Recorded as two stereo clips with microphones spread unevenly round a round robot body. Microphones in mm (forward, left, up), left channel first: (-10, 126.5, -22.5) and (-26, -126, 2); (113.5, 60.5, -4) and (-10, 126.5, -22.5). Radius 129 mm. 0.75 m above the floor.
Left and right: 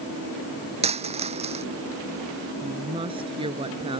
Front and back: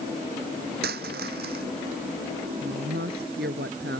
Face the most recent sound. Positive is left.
turn(degrees=-165)